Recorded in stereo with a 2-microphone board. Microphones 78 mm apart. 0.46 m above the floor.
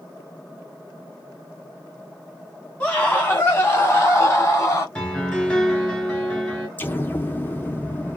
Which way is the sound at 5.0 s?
10° left (ahead or behind).